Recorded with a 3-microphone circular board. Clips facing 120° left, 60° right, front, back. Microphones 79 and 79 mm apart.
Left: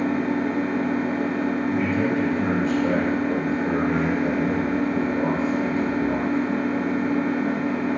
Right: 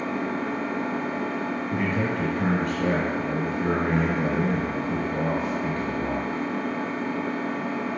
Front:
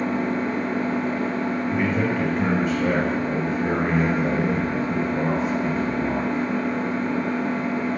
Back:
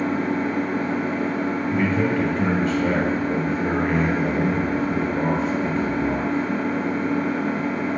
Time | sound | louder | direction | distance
0.0 | an engine running | left 5 dB, back 1 dB | 100° left | 1.2 m
1.7 | a man speaking | left 4 dB, back 3 dB | 80° right | 2.5 m